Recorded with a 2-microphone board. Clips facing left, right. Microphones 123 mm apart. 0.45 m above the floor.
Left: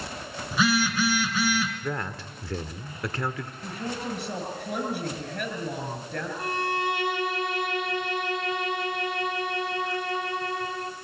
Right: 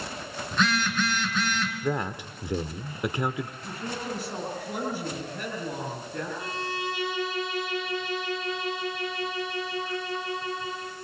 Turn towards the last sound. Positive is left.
turn(degrees=60)  # may be behind; listen again after turning